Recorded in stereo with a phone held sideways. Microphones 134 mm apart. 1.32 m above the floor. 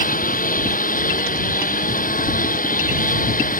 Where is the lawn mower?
90° left.